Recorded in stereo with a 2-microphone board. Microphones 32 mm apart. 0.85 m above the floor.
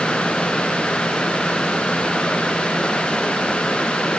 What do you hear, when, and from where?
Only background noise.